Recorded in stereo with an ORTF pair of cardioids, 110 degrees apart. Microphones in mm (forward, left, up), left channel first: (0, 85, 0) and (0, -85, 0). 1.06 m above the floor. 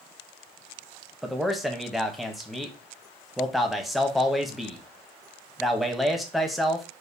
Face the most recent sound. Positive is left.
turn(degrees=0)